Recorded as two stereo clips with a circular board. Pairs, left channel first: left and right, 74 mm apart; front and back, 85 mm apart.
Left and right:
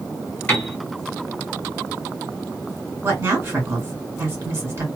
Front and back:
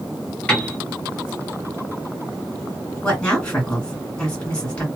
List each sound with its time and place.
0.5 s a piano: 60° left, 1.7 m
3.0 s a woman speaking: 65° right, 1.8 m